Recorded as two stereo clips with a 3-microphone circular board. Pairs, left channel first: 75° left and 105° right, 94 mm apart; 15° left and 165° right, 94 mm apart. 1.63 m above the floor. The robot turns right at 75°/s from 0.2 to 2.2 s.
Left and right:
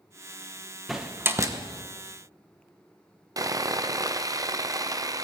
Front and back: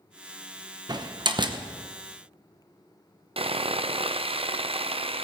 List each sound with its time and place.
0.9 s a door slam: 165° left, 0.9 m; by 1.6 s 145° right, 0.9 m
3.4 s sawing: 155° right, 0.5 m